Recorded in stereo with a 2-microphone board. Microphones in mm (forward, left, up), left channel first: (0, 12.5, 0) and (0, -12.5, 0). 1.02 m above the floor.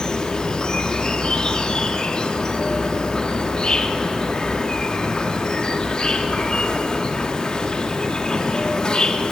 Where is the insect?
35° left (ahead or behind), 1.2 m.